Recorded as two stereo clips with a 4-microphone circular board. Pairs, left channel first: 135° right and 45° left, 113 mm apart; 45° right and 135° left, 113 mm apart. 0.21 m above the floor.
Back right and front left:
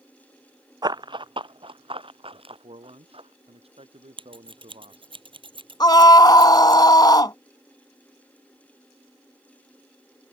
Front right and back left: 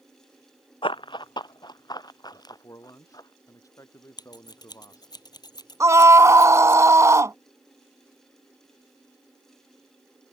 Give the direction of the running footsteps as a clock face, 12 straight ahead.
12 o'clock.